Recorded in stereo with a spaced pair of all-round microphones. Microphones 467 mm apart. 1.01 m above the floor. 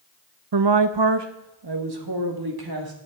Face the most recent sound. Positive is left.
turn(degrees=-50)  # may be behind; listen again after turning